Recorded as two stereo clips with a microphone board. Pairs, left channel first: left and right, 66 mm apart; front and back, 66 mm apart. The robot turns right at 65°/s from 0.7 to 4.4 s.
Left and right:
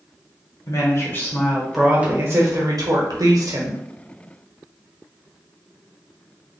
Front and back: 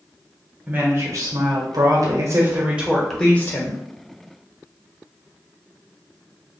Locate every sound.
0.7 s a woman speaking: 115° left, 0.8 m; by 3.8 s 40° right, 0.8 m